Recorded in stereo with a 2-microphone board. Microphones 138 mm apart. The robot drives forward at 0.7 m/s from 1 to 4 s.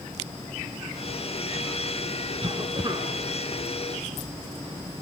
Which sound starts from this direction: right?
A cough, at 2.4 s.